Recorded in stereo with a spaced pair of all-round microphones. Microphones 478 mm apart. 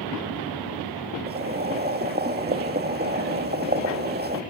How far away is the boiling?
About 1.5 m.